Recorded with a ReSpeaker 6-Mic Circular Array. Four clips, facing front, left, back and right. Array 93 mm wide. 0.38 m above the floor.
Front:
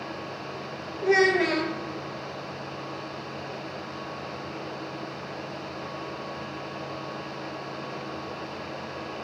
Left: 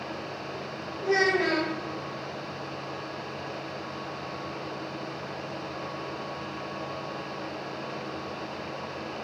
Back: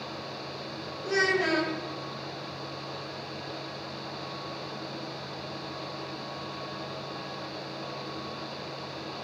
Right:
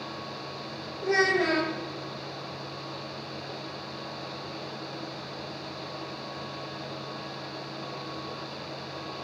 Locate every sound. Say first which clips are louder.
1.0 s a child speaking: even, front 6 dB; straight ahead, 5 m